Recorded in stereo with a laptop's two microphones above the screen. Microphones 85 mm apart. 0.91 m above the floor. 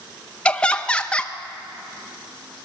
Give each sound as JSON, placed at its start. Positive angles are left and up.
{"t": 0.5, "sound": "laughter", "side_deg": 10, "distance_m": 0.7}